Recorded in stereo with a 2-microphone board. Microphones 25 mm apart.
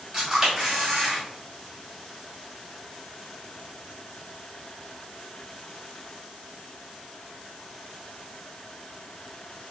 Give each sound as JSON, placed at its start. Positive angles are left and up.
{"t": 0.1, "sound": "a camera shutter", "side_deg": -25, "distance_m": 1.9}